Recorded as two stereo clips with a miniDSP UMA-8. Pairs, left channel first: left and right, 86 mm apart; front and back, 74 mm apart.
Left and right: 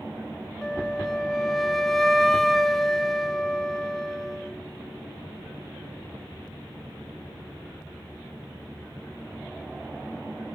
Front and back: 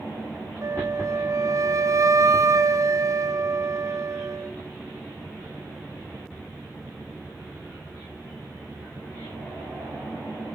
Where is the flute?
175° left, 0.6 m.